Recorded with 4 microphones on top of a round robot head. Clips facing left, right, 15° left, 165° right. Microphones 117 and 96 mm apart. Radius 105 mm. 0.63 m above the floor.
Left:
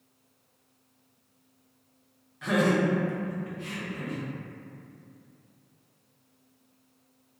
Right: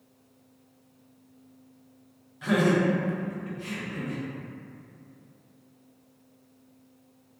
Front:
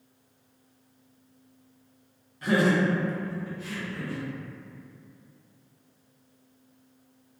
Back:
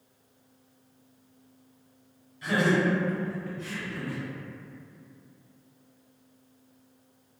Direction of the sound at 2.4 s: 5° right.